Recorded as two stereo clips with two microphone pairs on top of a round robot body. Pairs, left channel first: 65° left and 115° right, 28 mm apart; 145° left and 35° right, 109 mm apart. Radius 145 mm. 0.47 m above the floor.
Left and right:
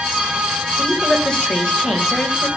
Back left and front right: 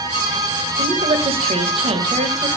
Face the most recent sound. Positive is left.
turn(degrees=0)